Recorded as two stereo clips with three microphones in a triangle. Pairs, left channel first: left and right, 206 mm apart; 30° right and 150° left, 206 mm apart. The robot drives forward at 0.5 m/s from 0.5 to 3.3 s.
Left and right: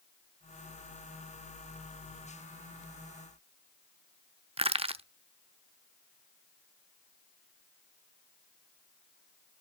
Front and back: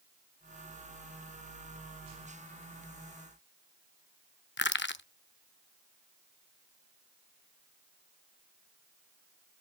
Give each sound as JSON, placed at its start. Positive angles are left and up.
{"t": 4.6, "sound": "crushing", "azimuth_deg": -30, "distance_m": 0.5}